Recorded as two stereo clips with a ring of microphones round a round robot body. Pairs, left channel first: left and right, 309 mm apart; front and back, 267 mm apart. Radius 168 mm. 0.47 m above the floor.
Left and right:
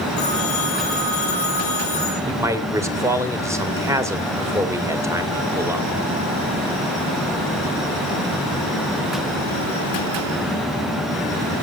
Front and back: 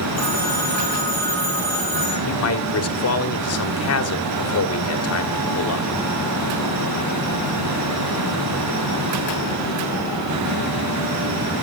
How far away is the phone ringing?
About 9 m.